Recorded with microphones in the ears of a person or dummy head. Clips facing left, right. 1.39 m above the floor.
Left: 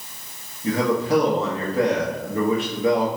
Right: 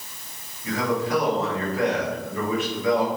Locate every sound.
0.6 s a man speaking: 25° left (ahead or behind), 0.6 m